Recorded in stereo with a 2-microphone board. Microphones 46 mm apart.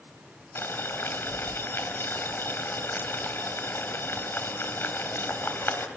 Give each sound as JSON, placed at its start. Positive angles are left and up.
{"t": 0.6, "sound": "boiling", "side_deg": 60, "distance_m": 2.5}